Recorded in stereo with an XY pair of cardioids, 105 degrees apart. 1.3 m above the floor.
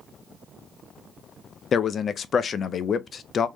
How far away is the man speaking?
About 0.6 m.